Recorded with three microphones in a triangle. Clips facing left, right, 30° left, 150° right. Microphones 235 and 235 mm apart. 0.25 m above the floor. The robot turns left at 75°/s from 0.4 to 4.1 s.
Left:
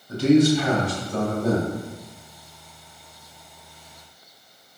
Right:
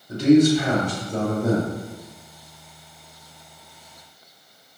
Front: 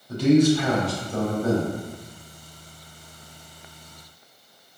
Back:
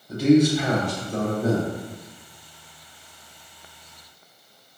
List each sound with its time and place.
0.1 s a man speaking: 90° right, 1.1 m; by 1.7 s 175° left, 1.1 m